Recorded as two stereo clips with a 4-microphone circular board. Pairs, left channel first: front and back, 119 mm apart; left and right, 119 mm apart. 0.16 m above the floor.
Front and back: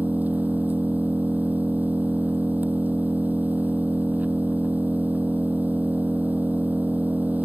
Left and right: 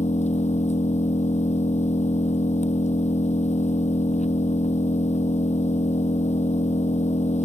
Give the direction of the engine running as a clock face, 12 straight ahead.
9 o'clock.